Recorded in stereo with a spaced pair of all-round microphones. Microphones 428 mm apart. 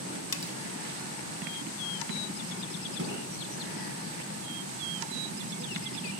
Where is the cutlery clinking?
55° left (ahead or behind), 0.8 m.